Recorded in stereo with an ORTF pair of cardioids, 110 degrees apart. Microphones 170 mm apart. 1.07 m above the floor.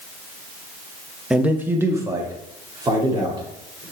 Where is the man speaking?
5° right, 0.8 m; by 3.8 s 25° right, 3 m.